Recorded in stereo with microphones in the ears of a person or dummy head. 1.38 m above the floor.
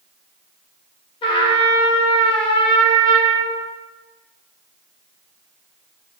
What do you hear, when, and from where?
1.2 s a trumpet: 30° left (ahead or behind), 0.6 m